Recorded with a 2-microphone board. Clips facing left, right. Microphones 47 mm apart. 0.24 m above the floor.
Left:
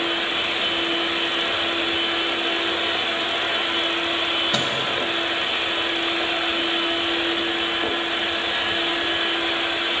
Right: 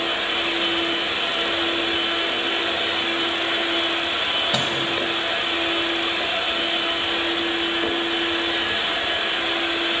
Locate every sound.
4.5 s a microwave: 5° right (ahead or behind), 1.1 m